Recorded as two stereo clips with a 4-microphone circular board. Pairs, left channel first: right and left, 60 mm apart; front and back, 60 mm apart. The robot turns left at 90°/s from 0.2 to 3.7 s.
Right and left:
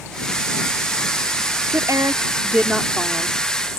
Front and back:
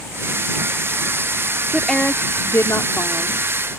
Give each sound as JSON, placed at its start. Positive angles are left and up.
{"t": 1.7, "sound": "a woman speaking", "azimuth_deg": 105}